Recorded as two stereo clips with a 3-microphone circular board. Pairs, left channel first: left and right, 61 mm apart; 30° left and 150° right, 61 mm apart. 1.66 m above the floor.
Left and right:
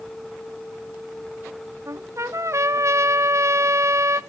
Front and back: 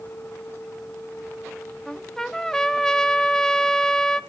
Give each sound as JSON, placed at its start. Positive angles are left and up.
{"t": 1.9, "sound": "a trumpet", "azimuth_deg": -50, "distance_m": 0.9}